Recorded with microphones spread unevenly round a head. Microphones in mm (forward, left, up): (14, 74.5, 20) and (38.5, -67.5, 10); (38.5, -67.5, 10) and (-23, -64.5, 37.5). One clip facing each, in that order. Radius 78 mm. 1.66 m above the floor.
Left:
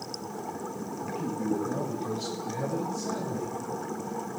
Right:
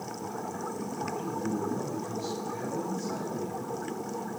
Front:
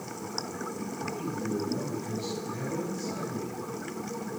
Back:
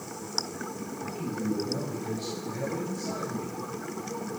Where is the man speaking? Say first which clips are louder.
Left 4 dB, back 2 dB; 125° left, 9 m; by 3.5 s 105° left, 7.5 m.